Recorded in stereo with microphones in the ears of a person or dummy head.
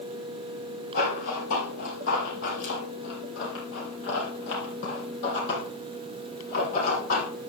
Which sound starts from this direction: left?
Running footsteps, at 0.9 s.